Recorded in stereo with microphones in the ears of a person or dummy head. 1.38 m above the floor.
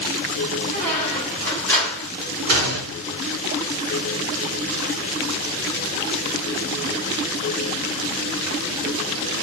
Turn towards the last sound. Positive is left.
turn(degrees=-60)  # may be behind; listen again after turning